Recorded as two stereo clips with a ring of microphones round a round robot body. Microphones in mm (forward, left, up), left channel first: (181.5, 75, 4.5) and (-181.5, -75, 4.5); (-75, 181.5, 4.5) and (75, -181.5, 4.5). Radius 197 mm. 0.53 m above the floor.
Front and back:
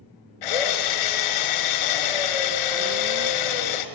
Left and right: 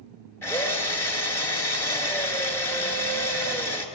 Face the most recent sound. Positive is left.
turn(degrees=30)